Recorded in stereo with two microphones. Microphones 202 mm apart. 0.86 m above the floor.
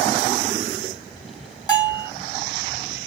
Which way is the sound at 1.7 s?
20° left (ahead or behind).